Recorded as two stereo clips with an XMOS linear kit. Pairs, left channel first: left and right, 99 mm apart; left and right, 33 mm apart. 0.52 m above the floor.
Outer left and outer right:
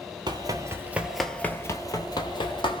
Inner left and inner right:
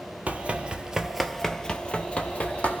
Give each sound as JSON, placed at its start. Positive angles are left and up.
{"t": 0.3, "sound": "running footsteps", "side_deg": -45, "distance_m": 0.7}